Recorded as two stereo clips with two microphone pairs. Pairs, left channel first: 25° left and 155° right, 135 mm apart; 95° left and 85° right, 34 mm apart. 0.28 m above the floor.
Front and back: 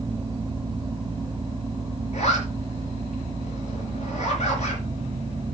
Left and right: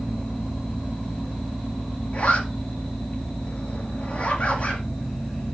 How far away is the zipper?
About 4 m.